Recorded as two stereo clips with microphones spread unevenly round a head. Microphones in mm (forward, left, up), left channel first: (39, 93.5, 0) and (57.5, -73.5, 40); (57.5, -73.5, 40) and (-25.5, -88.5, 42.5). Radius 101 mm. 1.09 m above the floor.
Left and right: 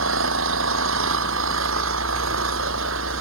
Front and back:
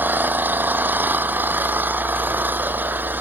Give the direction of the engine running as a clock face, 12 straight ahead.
3 o'clock.